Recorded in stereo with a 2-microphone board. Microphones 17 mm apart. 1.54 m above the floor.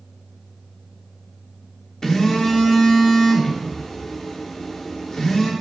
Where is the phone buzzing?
20° left (ahead or behind), 3.5 m.